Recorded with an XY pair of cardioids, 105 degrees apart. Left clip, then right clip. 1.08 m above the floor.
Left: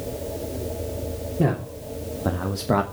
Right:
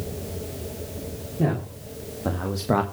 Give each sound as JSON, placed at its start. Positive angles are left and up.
{"t": 1.4, "sound": "a man speaking", "azimuth_deg": 20, "distance_m": 3.0}